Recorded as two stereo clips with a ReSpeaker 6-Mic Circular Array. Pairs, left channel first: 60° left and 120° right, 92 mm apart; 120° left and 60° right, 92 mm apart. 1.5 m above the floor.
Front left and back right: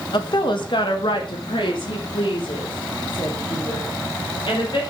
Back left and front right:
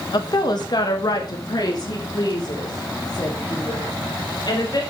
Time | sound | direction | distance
0.1 | a woman speaking | 85° left | 1.3 m